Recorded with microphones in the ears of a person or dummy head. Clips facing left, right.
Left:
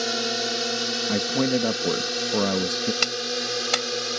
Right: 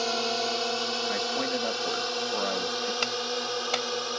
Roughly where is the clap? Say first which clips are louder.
Left 2 dB; left.